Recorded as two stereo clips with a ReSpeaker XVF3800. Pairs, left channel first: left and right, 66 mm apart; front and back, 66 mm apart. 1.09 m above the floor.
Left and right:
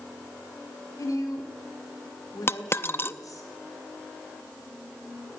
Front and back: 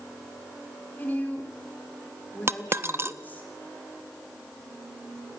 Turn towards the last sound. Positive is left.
turn(degrees=135)